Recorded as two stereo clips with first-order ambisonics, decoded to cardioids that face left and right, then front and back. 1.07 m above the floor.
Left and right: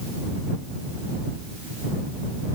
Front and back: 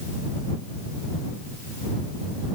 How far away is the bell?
I don't hear a bell.